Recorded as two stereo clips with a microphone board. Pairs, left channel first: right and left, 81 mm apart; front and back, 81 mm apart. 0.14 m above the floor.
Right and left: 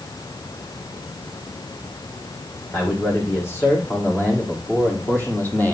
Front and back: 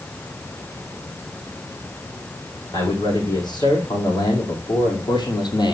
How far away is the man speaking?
About 8 m.